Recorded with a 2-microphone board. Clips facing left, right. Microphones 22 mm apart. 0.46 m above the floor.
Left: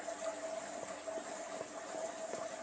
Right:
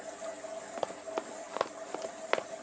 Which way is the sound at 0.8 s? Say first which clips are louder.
Right 6 dB; 85° right.